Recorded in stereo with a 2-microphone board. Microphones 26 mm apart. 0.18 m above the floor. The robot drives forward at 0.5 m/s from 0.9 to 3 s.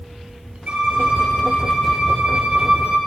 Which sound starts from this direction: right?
A violin, at 0.7 s.